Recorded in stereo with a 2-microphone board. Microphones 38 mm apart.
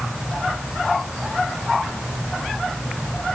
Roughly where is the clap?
I don't hear a clap.